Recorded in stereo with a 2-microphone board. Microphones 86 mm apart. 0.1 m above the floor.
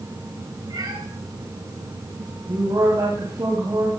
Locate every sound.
0.7 s a cat meowing: 50° right (ahead or behind), 8 m
2.5 s a woman speaking: 45° right (ahead or behind), 6 m